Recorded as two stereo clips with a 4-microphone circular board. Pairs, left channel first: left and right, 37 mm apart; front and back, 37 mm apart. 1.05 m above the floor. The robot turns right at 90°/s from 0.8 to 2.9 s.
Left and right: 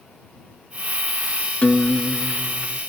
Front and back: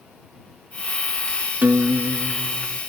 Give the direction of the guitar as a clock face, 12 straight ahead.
7 o'clock.